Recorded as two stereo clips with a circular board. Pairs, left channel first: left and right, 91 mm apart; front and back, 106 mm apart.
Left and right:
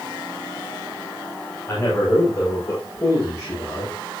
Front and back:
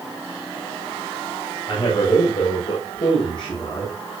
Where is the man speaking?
30° left, 7 m; by 4.0 s 40° left, 7.5 m.